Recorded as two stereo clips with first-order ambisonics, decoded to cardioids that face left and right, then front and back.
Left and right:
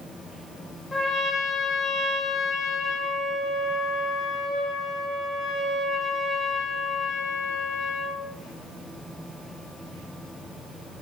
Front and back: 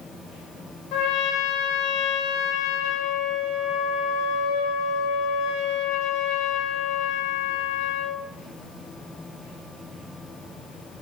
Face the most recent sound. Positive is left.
turn(degrees=15)